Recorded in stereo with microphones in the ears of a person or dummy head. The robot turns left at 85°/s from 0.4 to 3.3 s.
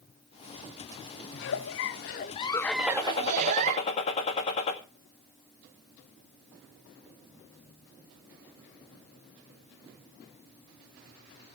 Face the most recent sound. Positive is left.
turn(degrees=140)